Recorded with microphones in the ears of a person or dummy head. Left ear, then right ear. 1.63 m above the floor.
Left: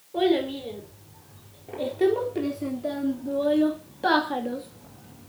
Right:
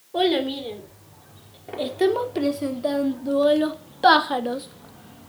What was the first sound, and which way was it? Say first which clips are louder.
A child speaking: right 2 dB; 30° right (ahead or behind).